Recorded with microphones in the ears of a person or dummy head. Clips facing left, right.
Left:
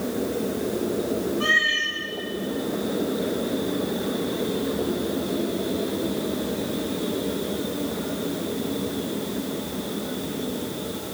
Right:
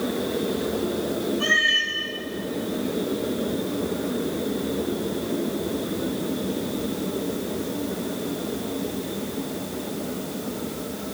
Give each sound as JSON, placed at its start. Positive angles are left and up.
{"t": 1.4, "sound": "a cat meowing", "side_deg": -10, "distance_m": 6.0}